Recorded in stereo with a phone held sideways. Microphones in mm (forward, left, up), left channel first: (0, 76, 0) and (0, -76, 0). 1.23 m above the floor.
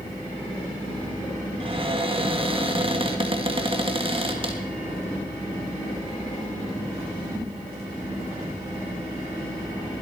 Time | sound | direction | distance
1.6 | a cupboard door | 35° right (ahead or behind) | 1.9 m